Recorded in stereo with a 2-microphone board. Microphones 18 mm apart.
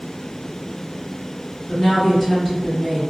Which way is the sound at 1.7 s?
5° right (ahead or behind).